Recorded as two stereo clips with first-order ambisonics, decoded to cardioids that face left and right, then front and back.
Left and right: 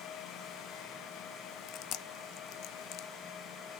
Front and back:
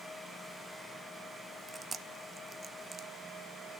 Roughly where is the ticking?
No ticking in this recording.